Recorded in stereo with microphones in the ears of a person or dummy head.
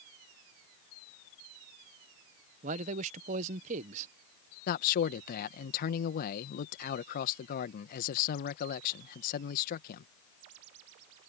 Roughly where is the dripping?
No dripping in this recording.